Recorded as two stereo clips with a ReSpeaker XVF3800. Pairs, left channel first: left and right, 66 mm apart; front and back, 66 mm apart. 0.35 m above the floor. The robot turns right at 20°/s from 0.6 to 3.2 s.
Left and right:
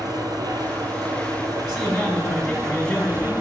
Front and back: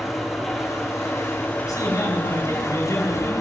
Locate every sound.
0.0 s an engine running: 90° right, 2.5 m; by 3.4 s 40° right, 2.5 m
1.6 s a man speaking: 10° right, 3.5 m; by 3.3 s 20° left, 3.5 m